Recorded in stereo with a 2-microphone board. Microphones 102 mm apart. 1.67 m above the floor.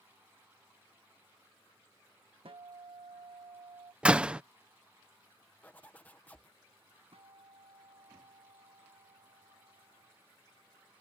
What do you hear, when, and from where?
2.5 s a guitar: 65° right (ahead or behind)
4.0 s a door slam: 10° right (ahead or behind)
5.6 s a zipper: 15° left (ahead or behind)
7.1 s a guitar: 75° right (ahead or behind)